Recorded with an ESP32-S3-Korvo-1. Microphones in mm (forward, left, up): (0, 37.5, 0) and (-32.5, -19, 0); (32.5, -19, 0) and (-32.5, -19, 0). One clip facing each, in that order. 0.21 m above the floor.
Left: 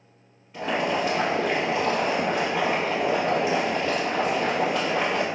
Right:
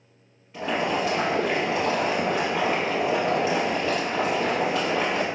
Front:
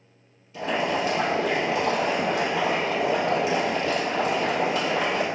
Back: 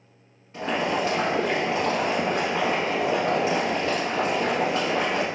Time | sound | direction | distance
0.5 | boiling | 150° left | 0.9 m